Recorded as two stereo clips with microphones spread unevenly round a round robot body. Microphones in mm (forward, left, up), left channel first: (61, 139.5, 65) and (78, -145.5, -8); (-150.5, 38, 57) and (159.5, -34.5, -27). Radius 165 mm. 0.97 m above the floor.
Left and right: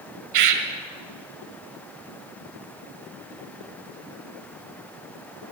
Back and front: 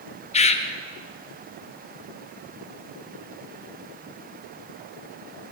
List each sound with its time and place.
0.3 s a bird: 130° right, 1.4 m